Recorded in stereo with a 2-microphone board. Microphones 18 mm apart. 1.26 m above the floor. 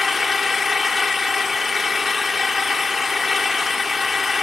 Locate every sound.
0.0 s an engine running: 20° right (ahead or behind)